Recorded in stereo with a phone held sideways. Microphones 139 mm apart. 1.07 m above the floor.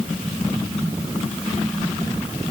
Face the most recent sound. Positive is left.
No sound to turn to.